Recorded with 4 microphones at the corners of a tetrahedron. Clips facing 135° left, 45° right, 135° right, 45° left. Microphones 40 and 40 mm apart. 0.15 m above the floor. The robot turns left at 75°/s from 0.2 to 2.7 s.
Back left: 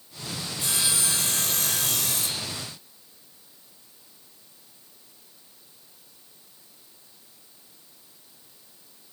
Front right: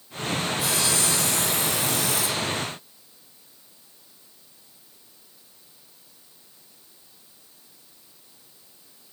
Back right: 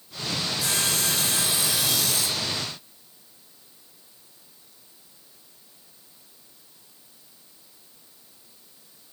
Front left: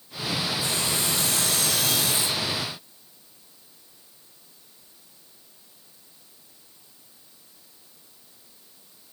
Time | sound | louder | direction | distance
0.6 | sawing | front right 4 dB, even | 120° right | 2.5 m